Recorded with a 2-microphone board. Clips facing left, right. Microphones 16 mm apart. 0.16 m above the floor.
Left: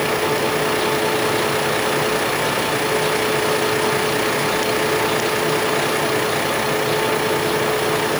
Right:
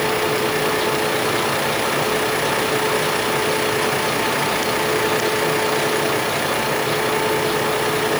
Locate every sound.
Only background noise.